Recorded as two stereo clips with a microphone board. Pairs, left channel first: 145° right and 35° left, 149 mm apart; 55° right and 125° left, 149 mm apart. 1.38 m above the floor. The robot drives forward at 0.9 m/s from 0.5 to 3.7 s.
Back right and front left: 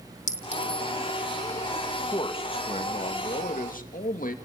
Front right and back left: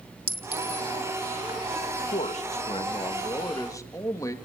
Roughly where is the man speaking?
Right.